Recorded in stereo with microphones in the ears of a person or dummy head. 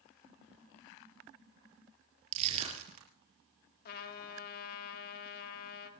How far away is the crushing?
About 4 m.